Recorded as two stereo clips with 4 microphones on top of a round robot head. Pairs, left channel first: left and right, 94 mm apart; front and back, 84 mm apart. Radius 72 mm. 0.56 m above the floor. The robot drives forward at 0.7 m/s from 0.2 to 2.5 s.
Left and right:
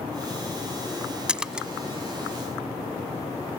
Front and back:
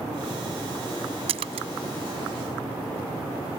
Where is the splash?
170° right.